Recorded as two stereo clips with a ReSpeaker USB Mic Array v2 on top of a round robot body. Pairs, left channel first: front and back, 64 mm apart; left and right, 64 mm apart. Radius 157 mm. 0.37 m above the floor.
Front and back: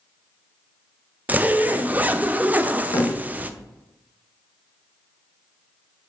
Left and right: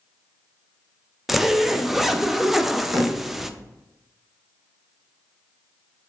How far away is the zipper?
About 0.6 m.